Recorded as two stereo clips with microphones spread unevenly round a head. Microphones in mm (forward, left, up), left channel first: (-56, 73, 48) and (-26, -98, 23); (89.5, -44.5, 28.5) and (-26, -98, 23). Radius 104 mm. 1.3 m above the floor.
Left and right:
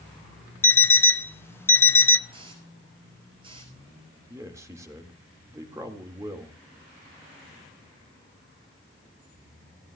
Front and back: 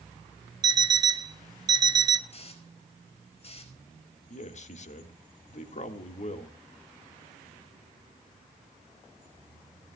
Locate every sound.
0.6 s an alarm clock: 155° left, 0.6 m
2.3 s a hiss: 10° right, 5 m
4.3 s a man speaking: 5° right, 1.9 m